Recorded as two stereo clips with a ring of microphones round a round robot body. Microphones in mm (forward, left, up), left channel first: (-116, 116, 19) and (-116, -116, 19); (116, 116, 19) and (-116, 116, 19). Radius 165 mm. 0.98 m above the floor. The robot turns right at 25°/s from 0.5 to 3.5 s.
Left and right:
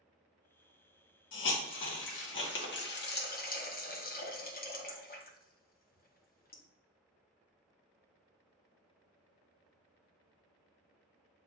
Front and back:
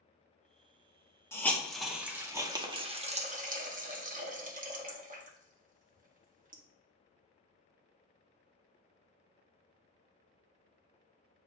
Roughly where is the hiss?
Left.